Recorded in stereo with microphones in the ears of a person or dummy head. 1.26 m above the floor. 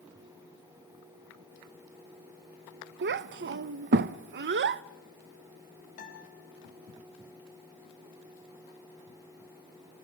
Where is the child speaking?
55° right (ahead or behind), 0.6 m.